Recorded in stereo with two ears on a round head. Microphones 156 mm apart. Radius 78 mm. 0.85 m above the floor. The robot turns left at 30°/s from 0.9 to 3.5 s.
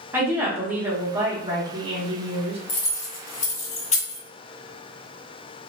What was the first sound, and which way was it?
A woman speaking, 25° right.